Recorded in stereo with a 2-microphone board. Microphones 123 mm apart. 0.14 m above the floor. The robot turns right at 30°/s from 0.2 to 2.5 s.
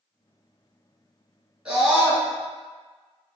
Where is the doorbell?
I don't hear a doorbell.